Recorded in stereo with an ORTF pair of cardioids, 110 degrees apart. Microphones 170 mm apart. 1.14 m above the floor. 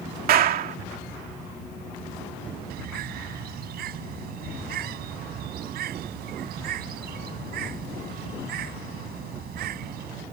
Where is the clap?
60° right.